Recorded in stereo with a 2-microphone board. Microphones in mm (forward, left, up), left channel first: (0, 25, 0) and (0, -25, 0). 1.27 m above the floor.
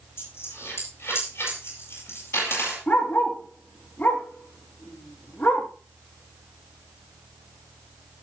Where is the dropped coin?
55° left (ahead or behind), 8.5 m.